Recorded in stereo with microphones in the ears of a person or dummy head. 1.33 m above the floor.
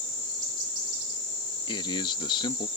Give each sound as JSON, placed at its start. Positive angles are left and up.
{"t": 1.7, "sound": "a man speaking", "side_deg": 25}